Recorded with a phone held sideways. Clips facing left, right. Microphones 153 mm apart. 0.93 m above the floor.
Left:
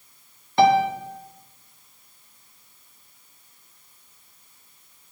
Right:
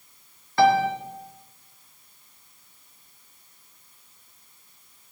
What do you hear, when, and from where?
0.6 s a piano: 20° left (ahead or behind), 1.5 m